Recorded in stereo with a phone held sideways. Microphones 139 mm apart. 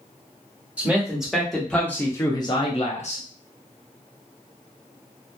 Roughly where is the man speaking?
Centre.